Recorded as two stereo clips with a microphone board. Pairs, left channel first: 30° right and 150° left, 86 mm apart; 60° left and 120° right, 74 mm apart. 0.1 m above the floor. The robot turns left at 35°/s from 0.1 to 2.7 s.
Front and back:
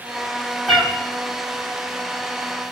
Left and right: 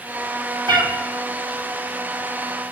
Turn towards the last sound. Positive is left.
turn(degrees=170)